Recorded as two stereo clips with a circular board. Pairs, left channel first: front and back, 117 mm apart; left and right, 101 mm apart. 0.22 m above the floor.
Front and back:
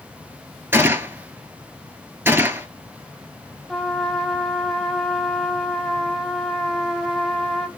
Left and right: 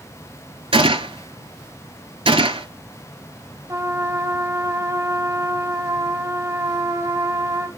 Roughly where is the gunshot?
Right.